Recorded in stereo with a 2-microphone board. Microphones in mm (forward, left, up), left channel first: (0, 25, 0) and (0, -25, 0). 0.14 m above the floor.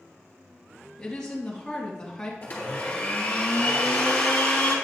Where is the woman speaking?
15° left (ahead or behind), 2.5 m.